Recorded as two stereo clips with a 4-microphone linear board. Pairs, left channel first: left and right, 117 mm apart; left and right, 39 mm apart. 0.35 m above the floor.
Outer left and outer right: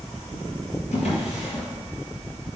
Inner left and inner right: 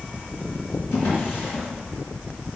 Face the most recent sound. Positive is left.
turn(degrees=75)  # may be behind; listen again after turning